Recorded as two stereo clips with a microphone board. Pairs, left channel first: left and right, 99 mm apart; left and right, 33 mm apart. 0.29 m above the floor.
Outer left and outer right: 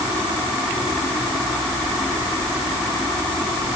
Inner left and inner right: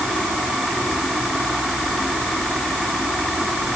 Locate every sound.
Only background noise.